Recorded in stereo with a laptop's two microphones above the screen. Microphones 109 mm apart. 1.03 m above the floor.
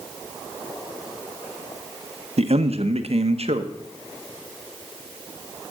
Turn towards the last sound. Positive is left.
turn(degrees=-65)  # may be behind; listen again after turning